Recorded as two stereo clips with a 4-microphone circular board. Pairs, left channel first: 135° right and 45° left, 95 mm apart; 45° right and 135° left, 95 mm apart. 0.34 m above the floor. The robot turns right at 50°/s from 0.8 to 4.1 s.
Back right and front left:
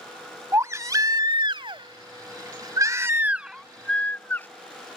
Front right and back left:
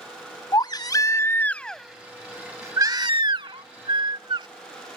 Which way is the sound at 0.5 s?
10° right.